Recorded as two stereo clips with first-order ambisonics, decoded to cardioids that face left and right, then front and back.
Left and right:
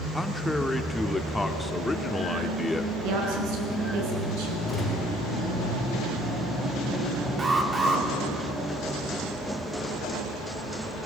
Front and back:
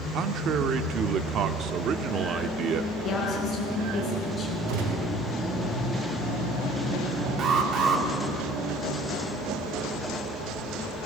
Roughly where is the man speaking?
Behind.